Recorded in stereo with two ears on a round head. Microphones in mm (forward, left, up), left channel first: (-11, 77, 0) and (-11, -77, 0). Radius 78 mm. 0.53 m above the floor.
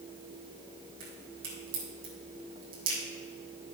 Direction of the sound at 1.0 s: 55° right (ahead or behind).